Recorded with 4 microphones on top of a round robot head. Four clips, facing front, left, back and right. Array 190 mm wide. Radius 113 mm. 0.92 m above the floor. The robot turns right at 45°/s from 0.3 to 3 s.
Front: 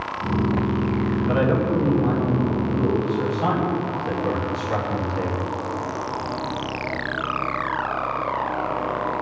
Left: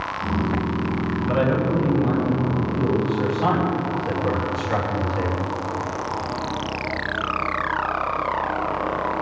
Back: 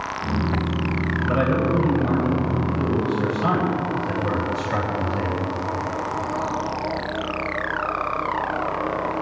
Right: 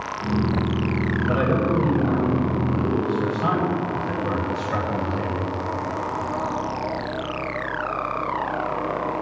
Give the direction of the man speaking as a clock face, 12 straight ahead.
2 o'clock.